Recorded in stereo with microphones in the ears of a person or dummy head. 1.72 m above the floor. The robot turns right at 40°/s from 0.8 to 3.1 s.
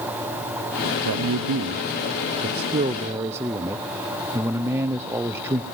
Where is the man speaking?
100° right, 0.7 m; by 5.6 s 15° right, 0.7 m.